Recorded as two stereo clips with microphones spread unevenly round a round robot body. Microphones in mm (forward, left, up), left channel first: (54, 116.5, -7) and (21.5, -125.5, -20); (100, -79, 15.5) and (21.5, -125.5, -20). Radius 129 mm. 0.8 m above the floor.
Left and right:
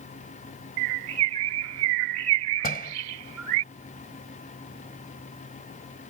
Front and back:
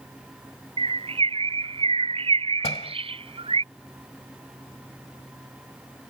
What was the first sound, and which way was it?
A bird, 130° right.